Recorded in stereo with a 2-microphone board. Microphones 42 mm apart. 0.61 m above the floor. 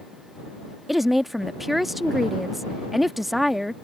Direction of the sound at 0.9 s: 5° right (ahead or behind).